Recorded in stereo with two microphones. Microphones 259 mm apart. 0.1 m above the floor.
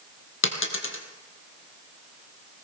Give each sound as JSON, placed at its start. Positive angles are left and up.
{"t": 0.4, "sound": "a dropped coin", "side_deg": 50, "distance_m": 1.5}